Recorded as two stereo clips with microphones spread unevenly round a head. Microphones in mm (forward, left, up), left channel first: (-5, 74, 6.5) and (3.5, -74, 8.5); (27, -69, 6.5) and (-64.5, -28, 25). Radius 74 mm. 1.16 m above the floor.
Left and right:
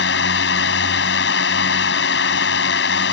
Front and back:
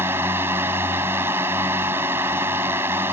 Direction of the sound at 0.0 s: 80° left.